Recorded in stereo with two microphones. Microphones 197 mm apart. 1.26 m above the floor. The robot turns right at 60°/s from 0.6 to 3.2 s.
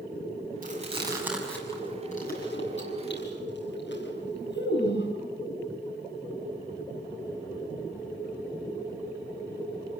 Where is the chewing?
50° right (ahead or behind), 6 m; by 5.1 s 70° left (ahead or behind), 6 m.